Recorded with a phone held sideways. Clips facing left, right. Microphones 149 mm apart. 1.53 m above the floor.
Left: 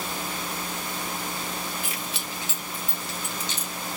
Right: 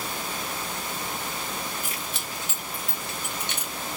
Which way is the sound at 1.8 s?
45° right (ahead or behind).